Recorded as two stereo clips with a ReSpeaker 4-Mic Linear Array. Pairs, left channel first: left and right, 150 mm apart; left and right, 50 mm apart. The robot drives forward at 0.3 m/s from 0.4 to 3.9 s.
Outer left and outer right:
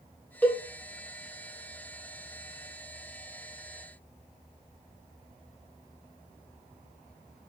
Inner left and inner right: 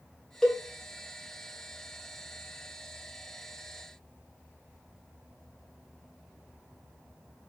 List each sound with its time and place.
0.4 s a cowbell: 10° left (ahead or behind), 0.7 m